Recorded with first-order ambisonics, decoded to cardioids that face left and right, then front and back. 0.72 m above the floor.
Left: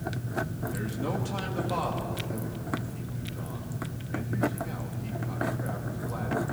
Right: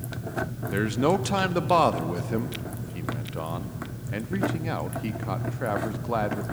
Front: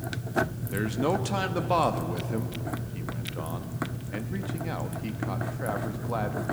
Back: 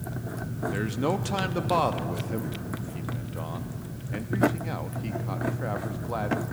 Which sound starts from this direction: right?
A man speaking, at 0.7 s.